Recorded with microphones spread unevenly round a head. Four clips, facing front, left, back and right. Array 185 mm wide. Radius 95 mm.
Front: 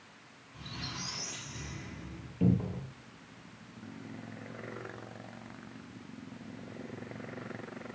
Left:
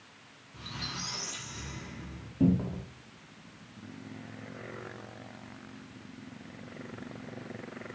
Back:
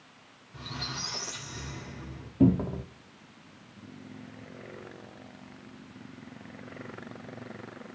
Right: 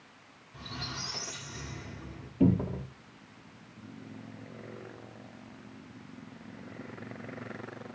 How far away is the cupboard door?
About 1.4 m.